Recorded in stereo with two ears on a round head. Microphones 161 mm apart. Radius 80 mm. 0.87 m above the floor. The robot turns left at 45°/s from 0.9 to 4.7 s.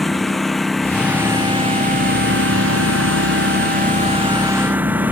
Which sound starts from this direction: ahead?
A lawn mower, at 0.0 s.